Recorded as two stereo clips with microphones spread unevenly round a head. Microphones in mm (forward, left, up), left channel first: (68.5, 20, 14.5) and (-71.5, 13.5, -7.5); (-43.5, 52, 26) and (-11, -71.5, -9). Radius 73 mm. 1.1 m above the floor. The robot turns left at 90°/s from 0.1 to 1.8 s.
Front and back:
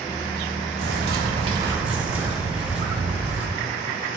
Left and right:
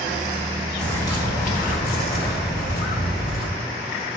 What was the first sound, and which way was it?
A bird, 170° right.